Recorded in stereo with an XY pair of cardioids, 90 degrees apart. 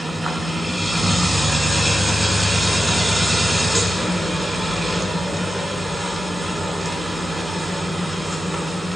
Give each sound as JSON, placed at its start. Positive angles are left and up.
{"t": 0.0, "sound": "a machine running", "azimuth_deg": 0, "distance_m": 2.0}